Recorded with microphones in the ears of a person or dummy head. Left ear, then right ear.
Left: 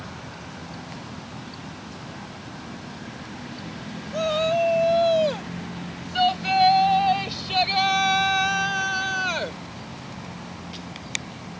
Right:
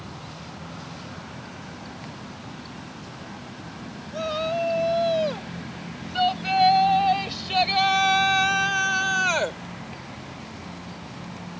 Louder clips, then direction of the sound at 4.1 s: Left 4 dB; 15° left (ahead or behind).